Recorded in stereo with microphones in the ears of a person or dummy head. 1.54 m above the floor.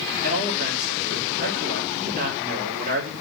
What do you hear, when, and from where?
0.2 s a man speaking: 50° right (ahead or behind), 4 m